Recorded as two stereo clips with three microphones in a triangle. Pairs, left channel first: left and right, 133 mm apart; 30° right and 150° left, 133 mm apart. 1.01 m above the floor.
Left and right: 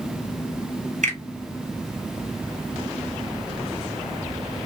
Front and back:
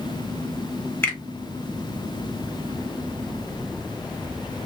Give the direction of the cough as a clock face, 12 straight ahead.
No cough in this recording.